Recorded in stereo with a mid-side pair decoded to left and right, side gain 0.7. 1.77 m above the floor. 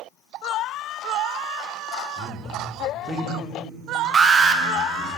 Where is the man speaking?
30° right, 2.5 m; by 5.1 s 25° right, 5.5 m.